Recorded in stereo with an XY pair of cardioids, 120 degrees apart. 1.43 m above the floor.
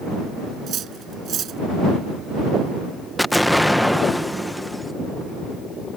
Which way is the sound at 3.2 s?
5° left.